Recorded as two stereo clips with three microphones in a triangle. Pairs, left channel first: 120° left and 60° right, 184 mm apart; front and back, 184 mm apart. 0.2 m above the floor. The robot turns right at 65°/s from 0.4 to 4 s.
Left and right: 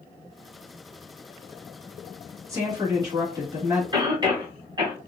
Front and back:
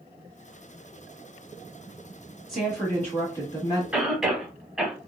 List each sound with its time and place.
2.5 s a woman speaking: 85° right, 1.2 m; by 3.8 s straight ahead, 1.2 m
3.9 s a cough: 100° right, 1.1 m; by 5.0 s 95° right, 1.1 m